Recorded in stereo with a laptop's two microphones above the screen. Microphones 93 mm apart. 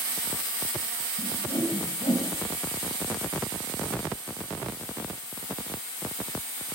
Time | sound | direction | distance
1.2 | a whoosh | 60° left (ahead or behind) | 3.5 m